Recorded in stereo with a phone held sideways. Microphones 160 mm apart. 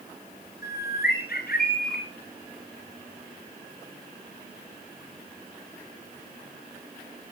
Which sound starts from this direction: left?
A bird, at 0.6 s.